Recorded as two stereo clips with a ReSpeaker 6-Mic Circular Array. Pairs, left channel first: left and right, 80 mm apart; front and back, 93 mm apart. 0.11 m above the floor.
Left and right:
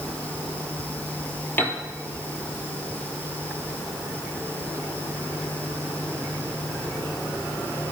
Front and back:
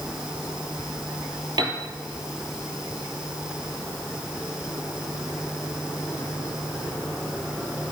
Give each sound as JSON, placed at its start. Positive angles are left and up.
{"t": 1.6, "sound": "a piano", "azimuth_deg": 155, "distance_m": 3.0}